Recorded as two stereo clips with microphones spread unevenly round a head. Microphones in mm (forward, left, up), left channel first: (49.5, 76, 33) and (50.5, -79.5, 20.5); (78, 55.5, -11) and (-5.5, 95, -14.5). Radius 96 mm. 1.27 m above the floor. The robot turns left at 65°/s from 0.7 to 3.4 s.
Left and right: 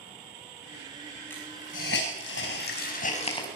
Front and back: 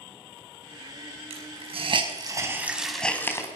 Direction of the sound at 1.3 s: 170° left.